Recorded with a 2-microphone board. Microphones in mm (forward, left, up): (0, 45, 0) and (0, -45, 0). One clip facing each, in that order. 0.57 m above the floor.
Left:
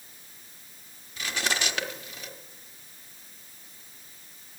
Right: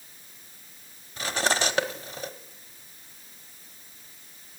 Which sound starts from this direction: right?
Cutlery clinking, at 1.2 s.